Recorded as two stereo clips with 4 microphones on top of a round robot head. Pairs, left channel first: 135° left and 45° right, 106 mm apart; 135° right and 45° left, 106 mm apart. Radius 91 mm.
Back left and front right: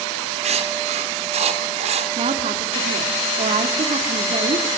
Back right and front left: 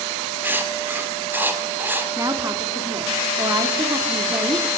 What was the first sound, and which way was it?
Writing, 25° right.